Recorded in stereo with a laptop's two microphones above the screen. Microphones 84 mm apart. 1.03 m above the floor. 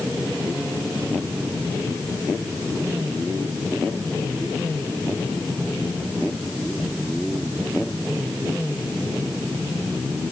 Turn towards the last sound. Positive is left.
No sound to turn to.